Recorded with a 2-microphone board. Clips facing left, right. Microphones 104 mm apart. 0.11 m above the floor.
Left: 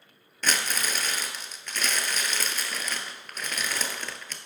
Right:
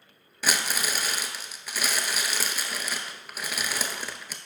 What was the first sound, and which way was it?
Crumpling, 10° right (ahead or behind).